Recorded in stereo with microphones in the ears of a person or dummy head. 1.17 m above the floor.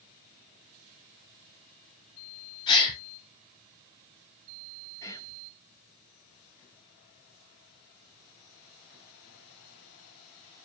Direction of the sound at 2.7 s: 25° left (ahead or behind).